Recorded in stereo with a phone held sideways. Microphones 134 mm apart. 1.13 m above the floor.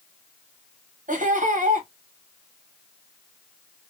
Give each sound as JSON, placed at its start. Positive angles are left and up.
{"t": 1.1, "sound": "laughter", "side_deg": -75, "distance_m": 1.2}